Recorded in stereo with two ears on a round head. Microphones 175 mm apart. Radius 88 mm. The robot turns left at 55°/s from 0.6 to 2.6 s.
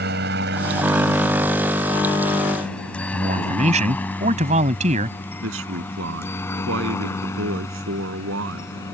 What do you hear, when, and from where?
0.0 s a helicopter: 55° right (ahead or behind); by 8.9 s 15° left (ahead or behind)
3.1 s a man speaking: 35° right (ahead or behind)
5.4 s a man speaking: 80° right